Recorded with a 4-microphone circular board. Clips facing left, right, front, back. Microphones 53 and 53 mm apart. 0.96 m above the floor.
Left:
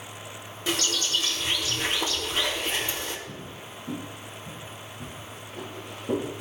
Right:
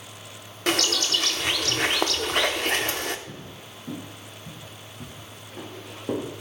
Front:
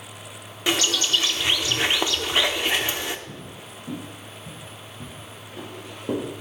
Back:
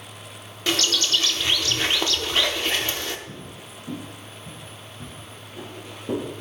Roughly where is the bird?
Right.